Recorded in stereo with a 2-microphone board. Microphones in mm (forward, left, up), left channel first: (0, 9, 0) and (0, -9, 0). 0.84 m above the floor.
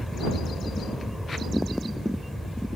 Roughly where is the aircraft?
Centre.